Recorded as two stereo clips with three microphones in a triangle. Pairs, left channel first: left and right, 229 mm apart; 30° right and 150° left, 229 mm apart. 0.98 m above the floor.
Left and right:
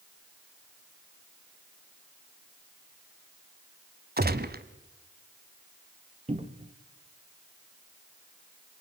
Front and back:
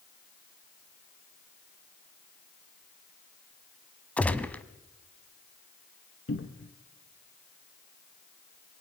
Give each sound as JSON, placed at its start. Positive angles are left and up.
{"t": 4.2, "sound": "a gunshot", "azimuth_deg": -110, "distance_m": 1.1}
{"t": 6.3, "sound": "a cupboard door", "azimuth_deg": -30, "distance_m": 1.2}